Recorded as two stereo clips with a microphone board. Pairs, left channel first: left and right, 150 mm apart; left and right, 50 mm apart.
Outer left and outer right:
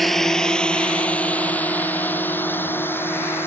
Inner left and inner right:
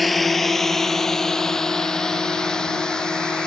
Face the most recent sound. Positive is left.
turn(degrees=15)  # may be behind; listen again after turning